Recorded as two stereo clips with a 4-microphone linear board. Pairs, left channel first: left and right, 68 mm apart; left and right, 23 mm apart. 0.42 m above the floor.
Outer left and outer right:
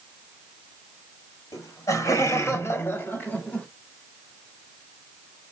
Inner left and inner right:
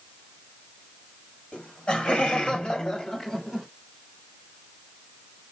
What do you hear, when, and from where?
1.5 s laughter: 60° left (ahead or behind), 2 m; by 3.7 s 20° left (ahead or behind), 1.5 m